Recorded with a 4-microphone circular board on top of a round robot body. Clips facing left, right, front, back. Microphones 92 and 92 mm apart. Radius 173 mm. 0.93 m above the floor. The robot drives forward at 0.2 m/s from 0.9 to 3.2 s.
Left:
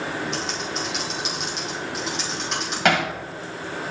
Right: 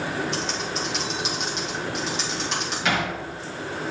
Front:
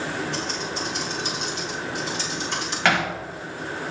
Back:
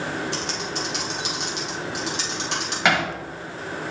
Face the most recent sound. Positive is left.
turn(degrees=110)